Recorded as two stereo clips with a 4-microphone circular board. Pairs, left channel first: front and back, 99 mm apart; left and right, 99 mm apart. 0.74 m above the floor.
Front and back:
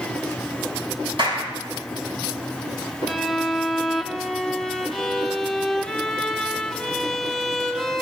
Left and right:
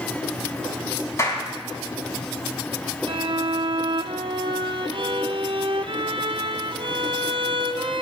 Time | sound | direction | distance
1.2 | a clap | 150° left | 5 m
3.1 | a violin | 85° right | 0.6 m